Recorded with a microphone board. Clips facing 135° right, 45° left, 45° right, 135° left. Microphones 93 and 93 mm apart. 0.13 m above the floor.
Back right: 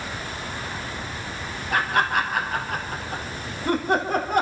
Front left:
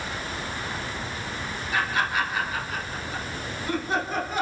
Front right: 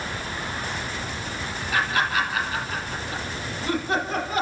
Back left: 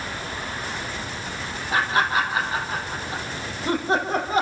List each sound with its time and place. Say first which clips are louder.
1.7 s laughter: back right 4 dB, back left 2 dB; 165° right, 3.5 m